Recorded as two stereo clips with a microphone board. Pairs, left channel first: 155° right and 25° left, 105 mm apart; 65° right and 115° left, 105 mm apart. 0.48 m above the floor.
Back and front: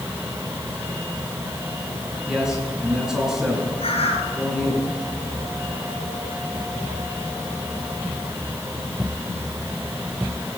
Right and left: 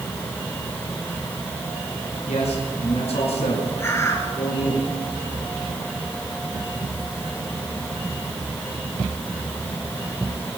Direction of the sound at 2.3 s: 65° right.